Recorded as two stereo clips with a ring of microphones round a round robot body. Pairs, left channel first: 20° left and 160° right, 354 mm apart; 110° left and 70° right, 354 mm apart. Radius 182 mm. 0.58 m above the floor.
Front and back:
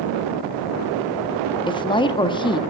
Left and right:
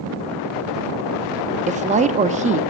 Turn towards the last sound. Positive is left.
turn(degrees=-35)